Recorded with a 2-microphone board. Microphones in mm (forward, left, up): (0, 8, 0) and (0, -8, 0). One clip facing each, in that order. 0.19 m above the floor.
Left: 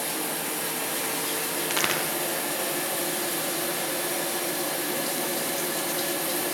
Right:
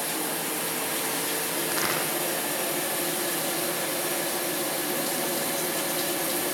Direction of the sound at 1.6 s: 75° left (ahead or behind).